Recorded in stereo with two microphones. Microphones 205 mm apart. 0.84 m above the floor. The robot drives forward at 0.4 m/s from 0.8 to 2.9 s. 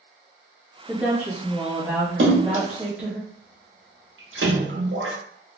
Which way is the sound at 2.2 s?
75° right (ahead or behind).